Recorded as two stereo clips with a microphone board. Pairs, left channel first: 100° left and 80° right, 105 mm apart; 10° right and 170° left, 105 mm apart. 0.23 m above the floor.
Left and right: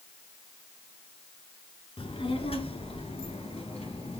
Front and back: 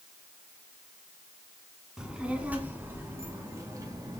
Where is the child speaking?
85° left, 1.7 m; by 4.2 s 115° left, 2.5 m.